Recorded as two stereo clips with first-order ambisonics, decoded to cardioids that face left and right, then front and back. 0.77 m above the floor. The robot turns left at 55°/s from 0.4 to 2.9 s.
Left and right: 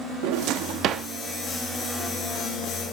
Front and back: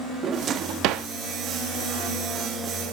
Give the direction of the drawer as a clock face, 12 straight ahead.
4 o'clock.